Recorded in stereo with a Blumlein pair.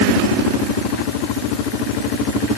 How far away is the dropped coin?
I don't hear a dropped coin.